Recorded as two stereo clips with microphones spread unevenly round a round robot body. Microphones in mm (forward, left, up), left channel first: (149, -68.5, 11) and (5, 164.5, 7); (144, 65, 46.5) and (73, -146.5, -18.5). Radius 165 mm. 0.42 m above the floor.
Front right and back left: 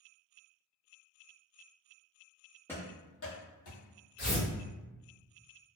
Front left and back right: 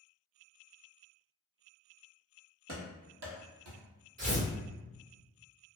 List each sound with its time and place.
2.7 s running footsteps: 140° right, 0.9 m; by 3.8 s 85° right, 1.1 m
4.2 s tearing paper: 95° right, 1.5 m